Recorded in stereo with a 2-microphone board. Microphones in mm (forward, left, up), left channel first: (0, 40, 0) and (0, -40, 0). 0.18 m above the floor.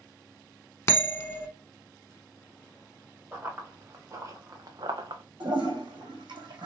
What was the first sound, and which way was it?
A bell, 35° left (ahead or behind).